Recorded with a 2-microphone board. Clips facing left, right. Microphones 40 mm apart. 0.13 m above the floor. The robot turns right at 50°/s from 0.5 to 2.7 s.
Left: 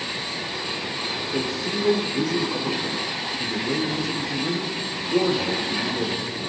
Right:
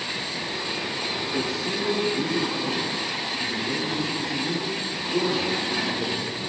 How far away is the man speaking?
About 6.5 m.